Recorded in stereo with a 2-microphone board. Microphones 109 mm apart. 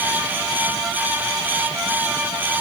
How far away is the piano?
I don't hear a piano.